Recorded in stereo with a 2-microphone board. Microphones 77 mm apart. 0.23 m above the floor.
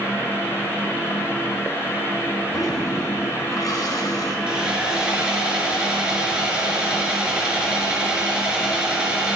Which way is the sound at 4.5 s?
15° right (ahead or behind).